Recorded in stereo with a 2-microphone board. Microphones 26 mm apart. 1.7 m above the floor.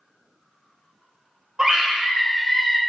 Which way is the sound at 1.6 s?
30° right (ahead or behind).